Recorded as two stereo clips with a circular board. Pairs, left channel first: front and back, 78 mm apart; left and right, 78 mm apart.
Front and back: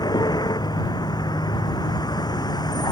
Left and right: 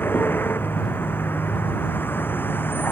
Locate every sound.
0.0 s a vehicle: 25° left